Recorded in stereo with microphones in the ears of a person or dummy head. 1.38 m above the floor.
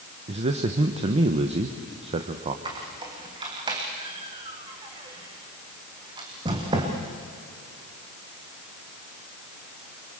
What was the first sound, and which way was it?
A man speaking, 35° right (ahead or behind).